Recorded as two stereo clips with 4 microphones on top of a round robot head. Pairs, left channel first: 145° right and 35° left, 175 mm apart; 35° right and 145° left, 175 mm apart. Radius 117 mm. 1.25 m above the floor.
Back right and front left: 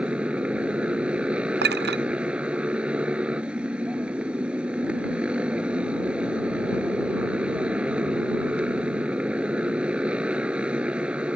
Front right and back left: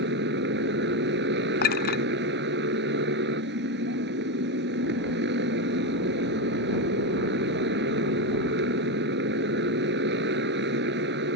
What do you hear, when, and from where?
0.0 s a motorcycle: 120° left
1.6 s a clink: 5° left